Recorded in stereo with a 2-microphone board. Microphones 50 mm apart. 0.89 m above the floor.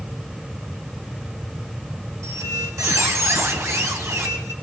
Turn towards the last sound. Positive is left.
turn(degrees=-80)